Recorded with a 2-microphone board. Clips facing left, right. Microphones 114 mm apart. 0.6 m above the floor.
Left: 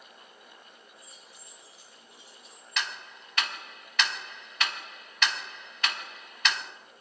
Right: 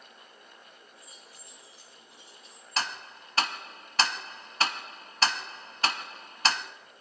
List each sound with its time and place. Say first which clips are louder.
1.0 s keys jangling: even; 25° left (ahead or behind), 6.5 m; by 2.8 s 10° left (ahead or behind), 7.5 m
2.8 s ticking: right 3 dB; 35° right (ahead or behind), 0.5 m